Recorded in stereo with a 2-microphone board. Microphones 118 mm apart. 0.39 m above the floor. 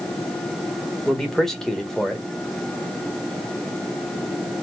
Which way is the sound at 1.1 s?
5° left (ahead or behind).